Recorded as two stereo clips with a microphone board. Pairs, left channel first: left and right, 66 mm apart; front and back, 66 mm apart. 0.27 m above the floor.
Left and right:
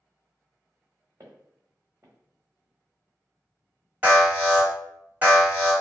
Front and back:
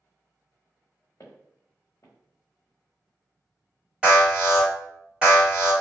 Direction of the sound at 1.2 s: 45° right.